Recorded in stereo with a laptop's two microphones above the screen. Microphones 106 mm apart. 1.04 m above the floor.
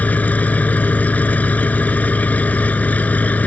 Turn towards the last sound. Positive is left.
turn(degrees=15)  # may be behind; listen again after turning